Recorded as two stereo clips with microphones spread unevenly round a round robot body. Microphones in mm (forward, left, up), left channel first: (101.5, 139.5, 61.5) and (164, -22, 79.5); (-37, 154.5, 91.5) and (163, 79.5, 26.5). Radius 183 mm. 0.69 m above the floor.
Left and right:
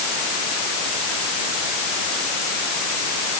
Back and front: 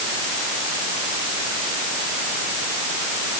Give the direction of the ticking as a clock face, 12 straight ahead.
No ticking in this recording.